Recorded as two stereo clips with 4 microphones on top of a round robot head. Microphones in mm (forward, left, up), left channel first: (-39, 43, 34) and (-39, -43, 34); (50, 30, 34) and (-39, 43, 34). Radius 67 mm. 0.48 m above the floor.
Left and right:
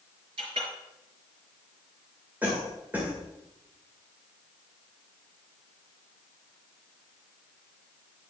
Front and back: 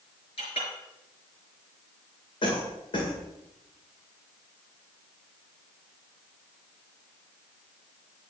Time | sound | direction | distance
0.4 | a clink | 45° right | 5 m
2.4 | a cough | 20° right | 2.0 m